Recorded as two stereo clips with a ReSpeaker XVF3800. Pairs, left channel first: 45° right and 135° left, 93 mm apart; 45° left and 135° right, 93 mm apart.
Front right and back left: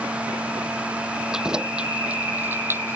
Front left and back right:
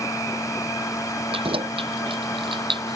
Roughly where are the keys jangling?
Behind right.